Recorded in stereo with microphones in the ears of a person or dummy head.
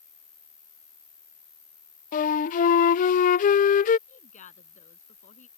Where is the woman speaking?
40° left (ahead or behind).